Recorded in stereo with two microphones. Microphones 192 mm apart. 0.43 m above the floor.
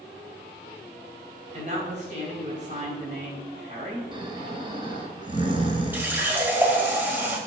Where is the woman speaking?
40° right (ahead or behind), 2.5 m.